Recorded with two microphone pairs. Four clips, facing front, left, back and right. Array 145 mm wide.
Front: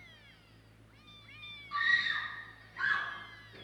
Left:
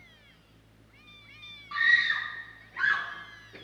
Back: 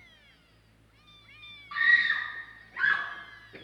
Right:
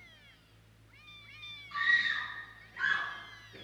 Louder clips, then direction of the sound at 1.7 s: Left 5 dB, back 6 dB; 145° left.